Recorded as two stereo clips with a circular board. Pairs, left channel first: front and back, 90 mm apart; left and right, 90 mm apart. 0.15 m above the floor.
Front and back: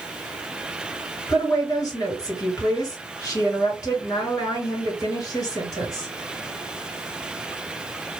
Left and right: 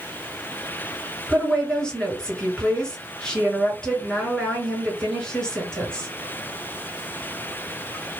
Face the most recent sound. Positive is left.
turn(degrees=10)